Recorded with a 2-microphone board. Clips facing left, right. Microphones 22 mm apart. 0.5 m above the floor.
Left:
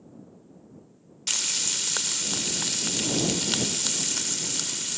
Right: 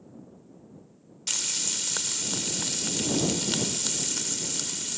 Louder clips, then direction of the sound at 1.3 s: Left 3 dB; 20° left (ahead or behind).